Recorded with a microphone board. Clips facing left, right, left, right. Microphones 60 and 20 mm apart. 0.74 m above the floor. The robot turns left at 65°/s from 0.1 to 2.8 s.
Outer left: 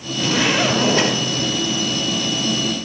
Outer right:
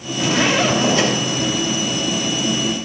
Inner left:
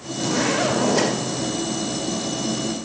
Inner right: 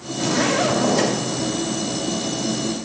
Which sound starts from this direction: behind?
A zipper, at 0.2 s.